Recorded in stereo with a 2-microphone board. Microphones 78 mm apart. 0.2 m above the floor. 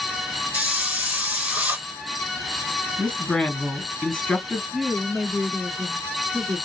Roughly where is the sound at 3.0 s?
Centre.